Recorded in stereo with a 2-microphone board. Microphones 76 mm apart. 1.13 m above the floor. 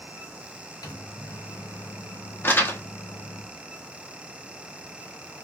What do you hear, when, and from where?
0.8 s a microwave: 60° left (ahead or behind), 0.7 m
2.4 s crumpling: 30° left (ahead or behind), 0.6 m